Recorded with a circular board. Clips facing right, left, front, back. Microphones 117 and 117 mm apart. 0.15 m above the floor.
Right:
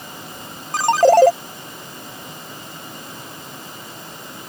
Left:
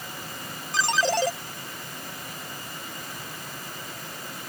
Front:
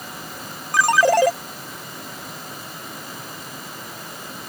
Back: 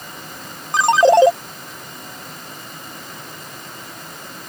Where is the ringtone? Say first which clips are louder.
Right 13 dB, back 5 dB; 115° right.